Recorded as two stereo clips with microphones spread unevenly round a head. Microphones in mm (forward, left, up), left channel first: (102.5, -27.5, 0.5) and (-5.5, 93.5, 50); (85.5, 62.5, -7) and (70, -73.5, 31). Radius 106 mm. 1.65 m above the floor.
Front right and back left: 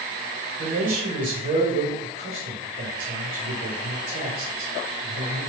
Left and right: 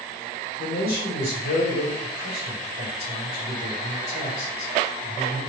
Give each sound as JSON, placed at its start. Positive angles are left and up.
{"t": 0.6, "sound": "a man speaking", "azimuth_deg": 105, "distance_m": 1.6}